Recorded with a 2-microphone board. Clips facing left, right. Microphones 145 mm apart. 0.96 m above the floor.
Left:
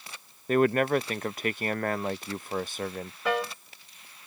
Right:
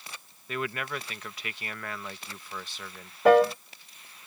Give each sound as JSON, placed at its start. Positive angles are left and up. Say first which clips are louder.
{"t": 0.5, "sound": "a man speaking", "louder": "left 11 dB", "side_deg": 45}
{"t": 3.2, "sound": "a piano", "louder": "right 11 dB", "side_deg": -50}